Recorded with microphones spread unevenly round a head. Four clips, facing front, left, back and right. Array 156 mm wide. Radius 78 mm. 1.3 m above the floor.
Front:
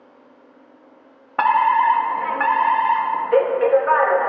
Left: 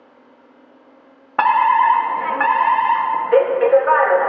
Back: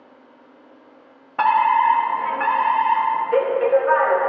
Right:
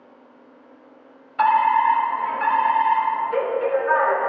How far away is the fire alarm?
About 1.9 m.